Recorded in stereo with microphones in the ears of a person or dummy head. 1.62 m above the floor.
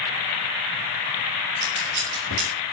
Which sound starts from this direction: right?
Scissors, at 1.6 s.